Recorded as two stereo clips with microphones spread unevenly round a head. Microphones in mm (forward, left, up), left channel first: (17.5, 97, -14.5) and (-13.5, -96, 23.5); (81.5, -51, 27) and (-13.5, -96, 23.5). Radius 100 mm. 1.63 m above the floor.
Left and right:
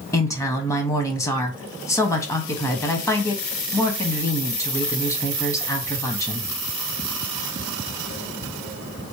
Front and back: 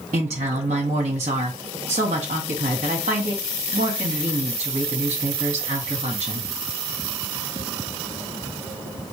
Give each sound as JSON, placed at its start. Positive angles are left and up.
{"t": 0.1, "sound": "a woman speaking", "azimuth_deg": 160, "distance_m": 0.7}